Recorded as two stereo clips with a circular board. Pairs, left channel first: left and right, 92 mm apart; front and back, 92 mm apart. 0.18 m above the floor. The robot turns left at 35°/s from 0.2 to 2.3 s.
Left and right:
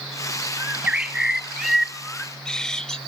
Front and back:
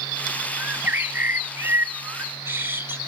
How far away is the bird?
About 0.6 m.